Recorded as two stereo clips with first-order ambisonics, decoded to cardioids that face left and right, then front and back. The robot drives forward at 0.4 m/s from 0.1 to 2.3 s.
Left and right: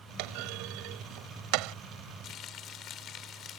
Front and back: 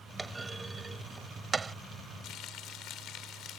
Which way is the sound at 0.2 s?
100° right.